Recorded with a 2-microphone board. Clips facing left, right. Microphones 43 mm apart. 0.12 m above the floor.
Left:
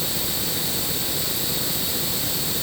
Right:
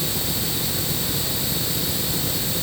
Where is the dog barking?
I don't hear a dog barking.